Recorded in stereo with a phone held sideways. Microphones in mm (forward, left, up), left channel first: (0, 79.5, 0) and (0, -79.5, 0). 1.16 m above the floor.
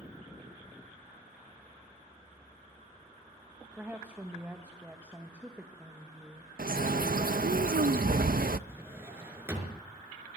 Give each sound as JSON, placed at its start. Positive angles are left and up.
{"t": 3.8, "sound": "a woman speaking", "side_deg": -10, "distance_m": 1.4}
{"t": 6.6, "sound": "a bird", "side_deg": -70, "distance_m": 0.6}
{"t": 8.7, "sound": "a drawer", "side_deg": -15, "distance_m": 4.5}